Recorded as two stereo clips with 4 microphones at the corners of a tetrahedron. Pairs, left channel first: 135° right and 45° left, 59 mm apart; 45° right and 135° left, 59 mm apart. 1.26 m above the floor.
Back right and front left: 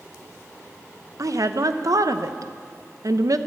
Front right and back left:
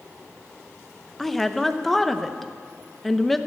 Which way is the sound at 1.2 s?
40° left.